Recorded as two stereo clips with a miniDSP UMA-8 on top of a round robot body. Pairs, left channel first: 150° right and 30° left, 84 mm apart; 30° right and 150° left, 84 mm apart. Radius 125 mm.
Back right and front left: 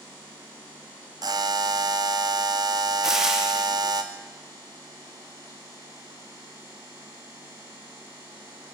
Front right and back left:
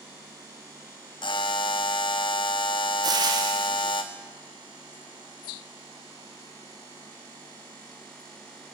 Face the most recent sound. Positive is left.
turn(degrees=115)